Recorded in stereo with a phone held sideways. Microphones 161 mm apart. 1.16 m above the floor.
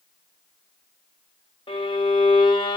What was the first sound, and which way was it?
A violin, 30° left (ahead or behind).